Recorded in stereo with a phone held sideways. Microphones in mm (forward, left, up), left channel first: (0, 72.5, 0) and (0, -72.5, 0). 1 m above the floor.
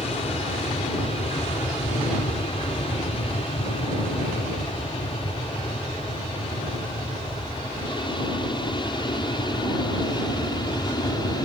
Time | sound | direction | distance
0.0 | an aircraft | 45° left (ahead or behind) | ?